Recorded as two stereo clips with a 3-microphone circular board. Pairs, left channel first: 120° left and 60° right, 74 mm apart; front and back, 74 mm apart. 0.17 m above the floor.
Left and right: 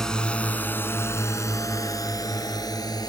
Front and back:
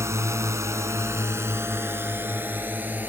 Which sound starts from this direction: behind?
A drone, at 0.0 s.